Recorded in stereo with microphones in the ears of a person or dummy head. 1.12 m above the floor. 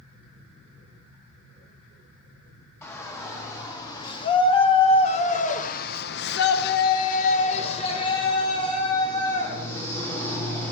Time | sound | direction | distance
2.8 | a shout | 15° left (ahead or behind) | 2.5 m